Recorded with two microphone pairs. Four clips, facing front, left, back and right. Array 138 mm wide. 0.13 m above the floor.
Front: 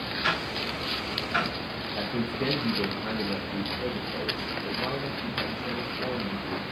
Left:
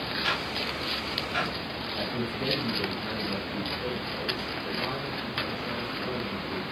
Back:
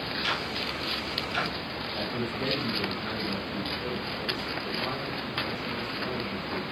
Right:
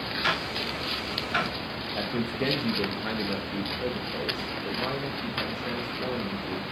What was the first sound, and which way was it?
Ticking, 50° right.